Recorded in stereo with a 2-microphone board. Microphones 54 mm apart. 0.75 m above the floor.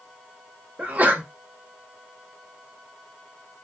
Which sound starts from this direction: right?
A sneeze, at 0.8 s.